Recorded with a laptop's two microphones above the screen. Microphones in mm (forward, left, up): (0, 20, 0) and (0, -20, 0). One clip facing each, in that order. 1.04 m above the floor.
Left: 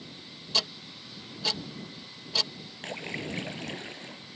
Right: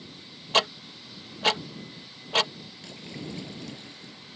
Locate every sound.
0.5 s ticking: 45° right (ahead or behind)
2.8 s a splash: 45° left (ahead or behind)